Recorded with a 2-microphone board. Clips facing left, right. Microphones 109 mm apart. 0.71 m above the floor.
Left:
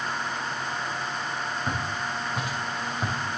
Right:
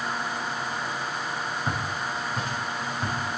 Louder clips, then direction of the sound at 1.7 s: Even; 5° right (ahead or behind).